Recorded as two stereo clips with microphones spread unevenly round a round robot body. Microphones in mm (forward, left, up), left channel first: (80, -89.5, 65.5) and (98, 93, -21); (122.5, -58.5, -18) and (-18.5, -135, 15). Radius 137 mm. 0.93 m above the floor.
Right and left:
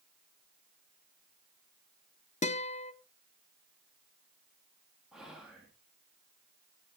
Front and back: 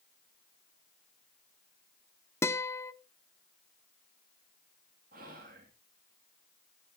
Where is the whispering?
155° left, 1.1 m.